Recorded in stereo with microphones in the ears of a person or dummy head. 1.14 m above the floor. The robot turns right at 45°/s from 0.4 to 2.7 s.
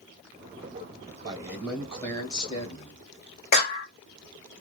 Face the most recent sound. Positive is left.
turn(degrees=50)  # may be behind; listen again after turning